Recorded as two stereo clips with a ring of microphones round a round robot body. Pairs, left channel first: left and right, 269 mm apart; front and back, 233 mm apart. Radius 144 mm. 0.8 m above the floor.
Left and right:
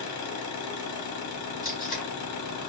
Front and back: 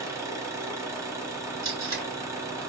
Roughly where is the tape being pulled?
Behind left.